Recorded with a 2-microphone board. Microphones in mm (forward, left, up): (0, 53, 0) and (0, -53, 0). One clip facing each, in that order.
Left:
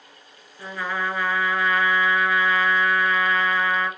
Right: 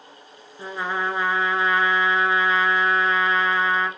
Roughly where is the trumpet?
Right.